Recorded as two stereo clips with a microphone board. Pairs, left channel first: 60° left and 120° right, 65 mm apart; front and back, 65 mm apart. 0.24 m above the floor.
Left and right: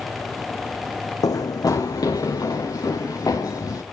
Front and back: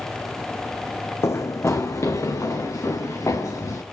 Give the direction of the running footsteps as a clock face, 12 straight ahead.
11 o'clock.